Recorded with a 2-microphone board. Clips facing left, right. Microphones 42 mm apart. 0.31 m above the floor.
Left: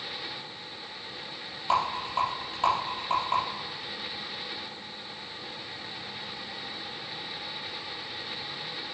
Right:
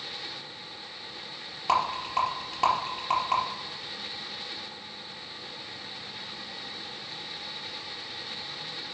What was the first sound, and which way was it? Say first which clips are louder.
A rattle: right 1 dB; 80° right.